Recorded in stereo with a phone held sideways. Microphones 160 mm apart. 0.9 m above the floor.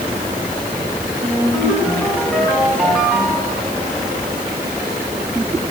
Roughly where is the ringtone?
Centre.